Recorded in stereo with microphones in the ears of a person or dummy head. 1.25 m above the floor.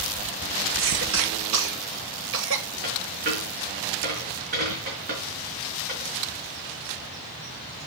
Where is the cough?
65° right (ahead or behind), 1.2 m.